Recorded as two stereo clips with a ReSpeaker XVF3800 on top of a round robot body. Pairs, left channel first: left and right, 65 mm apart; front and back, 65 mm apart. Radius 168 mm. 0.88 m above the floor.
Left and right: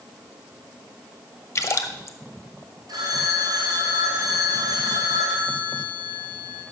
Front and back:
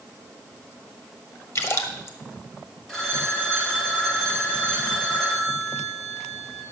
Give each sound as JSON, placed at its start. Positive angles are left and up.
{"t": 1.6, "sound": "a splash", "azimuth_deg": 45, "distance_m": 1.2}
{"t": 2.9, "sound": "a phone ringing", "azimuth_deg": -80, "distance_m": 2.5}